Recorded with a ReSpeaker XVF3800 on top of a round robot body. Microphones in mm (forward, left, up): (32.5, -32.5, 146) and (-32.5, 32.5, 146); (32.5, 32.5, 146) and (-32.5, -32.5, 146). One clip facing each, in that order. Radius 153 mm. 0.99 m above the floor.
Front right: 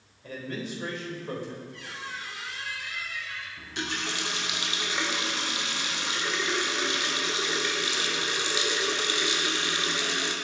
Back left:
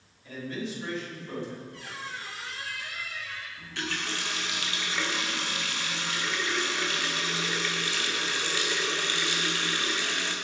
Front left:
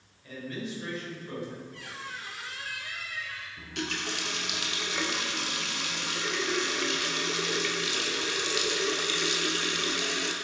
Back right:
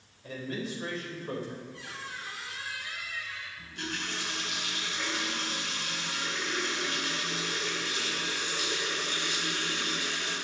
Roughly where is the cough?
No cough in this recording.